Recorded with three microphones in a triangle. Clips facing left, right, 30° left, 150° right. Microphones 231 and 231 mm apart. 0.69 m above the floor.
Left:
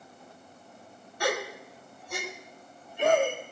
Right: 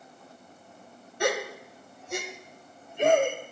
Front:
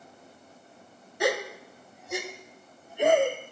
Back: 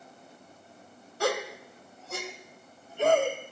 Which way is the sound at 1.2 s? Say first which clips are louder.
Right 2 dB, front 2 dB; 40° right.